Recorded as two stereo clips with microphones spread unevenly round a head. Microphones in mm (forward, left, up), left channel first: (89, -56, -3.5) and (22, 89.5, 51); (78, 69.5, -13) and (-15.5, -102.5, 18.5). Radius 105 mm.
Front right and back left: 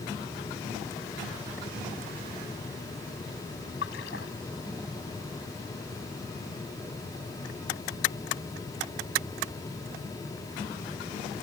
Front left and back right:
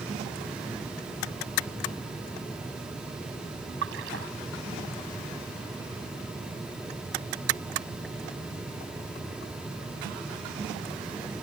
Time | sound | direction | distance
3.8 | a splash | 100° right | ?